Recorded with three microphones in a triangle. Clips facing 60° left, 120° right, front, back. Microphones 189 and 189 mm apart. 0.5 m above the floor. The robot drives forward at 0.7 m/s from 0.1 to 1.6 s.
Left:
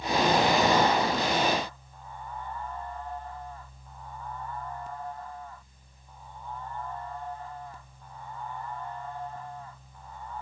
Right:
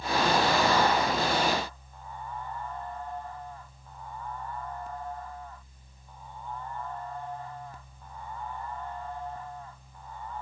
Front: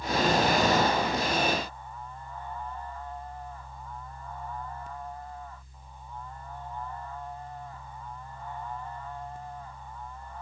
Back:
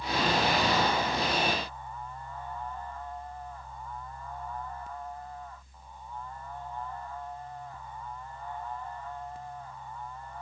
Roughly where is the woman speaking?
No woman speaking in this recording.